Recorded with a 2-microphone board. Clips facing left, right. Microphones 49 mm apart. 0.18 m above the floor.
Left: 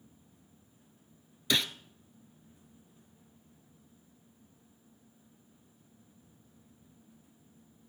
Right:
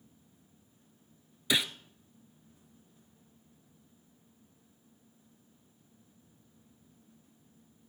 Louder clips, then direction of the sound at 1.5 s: Even; 10° right (ahead or behind).